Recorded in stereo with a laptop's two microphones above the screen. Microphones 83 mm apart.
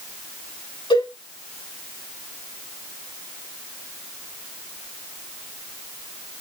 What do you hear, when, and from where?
0.9 s a cowbell: 80° left, 6.5 m